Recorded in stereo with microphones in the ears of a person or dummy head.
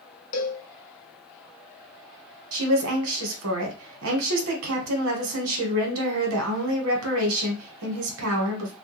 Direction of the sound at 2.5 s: 80° right.